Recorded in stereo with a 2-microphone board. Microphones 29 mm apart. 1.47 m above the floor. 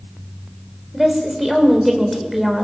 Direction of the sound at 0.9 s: 5° right (ahead or behind).